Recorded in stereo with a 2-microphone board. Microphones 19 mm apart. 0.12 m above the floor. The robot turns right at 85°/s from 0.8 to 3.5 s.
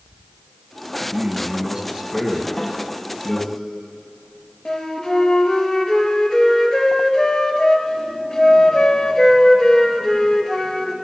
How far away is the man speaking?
About 2.5 m.